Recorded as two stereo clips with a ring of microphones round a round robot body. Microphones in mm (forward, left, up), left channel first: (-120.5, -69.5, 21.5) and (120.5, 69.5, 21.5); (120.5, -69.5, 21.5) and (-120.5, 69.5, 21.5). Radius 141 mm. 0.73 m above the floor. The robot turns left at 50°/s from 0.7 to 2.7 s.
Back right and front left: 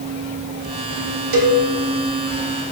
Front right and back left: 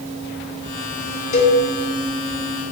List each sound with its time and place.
1.3 s a cowbell: 35° left, 0.7 m; by 1.6 s 20° left, 0.7 m